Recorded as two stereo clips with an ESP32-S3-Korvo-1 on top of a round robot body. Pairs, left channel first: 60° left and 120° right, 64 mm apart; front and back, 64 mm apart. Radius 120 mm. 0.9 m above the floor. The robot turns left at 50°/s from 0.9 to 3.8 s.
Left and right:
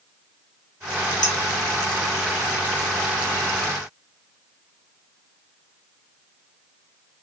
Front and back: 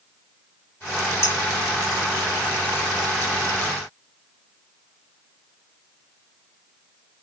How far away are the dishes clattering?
About 1.5 m.